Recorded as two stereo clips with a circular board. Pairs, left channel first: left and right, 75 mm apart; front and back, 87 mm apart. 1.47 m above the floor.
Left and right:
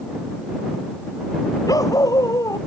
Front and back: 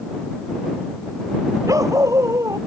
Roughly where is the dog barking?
Behind left.